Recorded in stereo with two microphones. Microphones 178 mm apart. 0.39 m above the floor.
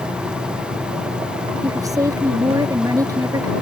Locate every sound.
1.6 s a woman speaking: 20° right (ahead or behind)